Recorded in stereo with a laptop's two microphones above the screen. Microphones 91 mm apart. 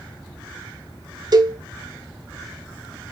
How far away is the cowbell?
About 0.8 m.